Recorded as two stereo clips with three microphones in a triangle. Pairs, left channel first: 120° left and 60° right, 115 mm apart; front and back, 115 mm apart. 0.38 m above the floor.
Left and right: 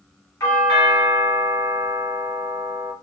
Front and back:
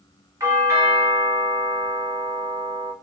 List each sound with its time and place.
0.4 s a doorbell: 155° left, 1.3 m